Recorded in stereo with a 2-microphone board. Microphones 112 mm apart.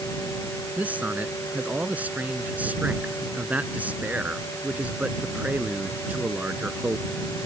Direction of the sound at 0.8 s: 15° right (ahead or behind).